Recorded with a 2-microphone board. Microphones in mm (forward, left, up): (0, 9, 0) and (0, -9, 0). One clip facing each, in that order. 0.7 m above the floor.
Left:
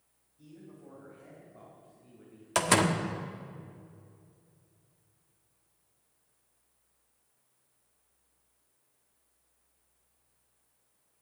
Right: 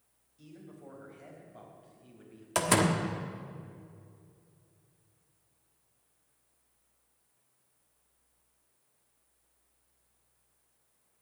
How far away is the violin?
No violin in this recording.